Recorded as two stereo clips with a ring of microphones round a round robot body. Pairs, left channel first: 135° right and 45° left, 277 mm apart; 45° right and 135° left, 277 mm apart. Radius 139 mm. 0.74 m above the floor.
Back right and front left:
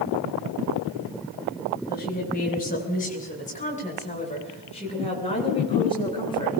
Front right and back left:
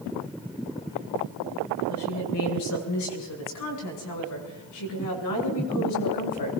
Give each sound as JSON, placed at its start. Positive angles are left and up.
{"t": 1.9, "sound": "a woman speaking", "azimuth_deg": -80, "distance_m": 6.0}